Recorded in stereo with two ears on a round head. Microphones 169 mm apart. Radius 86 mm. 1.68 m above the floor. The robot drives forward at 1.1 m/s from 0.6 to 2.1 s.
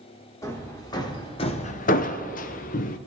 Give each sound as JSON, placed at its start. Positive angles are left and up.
{"t": 0.4, "sound": "hammering", "side_deg": 15, "distance_m": 1.7}